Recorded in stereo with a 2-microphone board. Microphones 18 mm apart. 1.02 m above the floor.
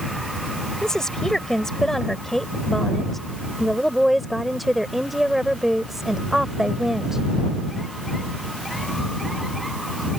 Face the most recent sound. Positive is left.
turn(degrees=-25)  # may be behind; listen again after turning